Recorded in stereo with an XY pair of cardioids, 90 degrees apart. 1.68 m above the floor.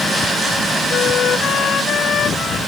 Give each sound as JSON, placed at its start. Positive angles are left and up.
{"t": 0.9, "sound": "a flute", "azimuth_deg": 65}